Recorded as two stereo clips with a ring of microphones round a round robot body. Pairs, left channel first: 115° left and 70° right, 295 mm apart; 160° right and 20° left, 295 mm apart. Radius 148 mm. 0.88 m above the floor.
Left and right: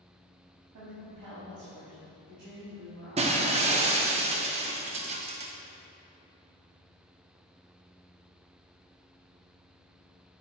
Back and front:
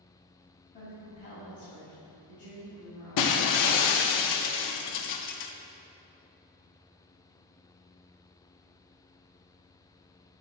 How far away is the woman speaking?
About 2 m.